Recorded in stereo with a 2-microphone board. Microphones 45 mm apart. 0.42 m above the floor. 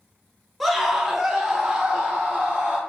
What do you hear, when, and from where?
0.6 s a scream: 5° right (ahead or behind), 1.0 m; by 2.8 s 20° right (ahead or behind), 1.3 m